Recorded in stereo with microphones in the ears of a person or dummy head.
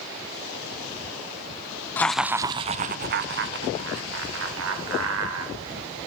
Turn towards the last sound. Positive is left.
turn(degrees=-80)